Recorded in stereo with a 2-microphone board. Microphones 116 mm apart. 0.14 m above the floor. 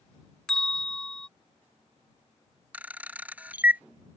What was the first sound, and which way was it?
A bell, 5° left (ahead or behind).